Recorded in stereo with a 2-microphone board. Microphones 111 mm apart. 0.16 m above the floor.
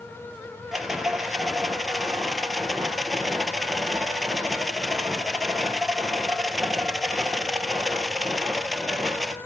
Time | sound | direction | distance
0.7 | a rattle | centre (ahead or behind) | 1.2 m